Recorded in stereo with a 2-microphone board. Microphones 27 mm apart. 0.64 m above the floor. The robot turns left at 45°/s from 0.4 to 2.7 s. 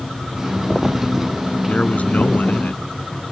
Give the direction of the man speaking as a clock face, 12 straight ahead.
8 o'clock.